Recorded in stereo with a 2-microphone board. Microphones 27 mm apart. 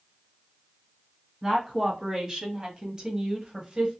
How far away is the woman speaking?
About 2.0 m.